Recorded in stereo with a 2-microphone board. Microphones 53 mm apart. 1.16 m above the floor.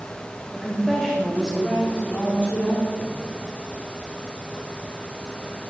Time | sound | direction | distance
0.5 | a woman speaking | 5° right (ahead or behind) | 2.5 m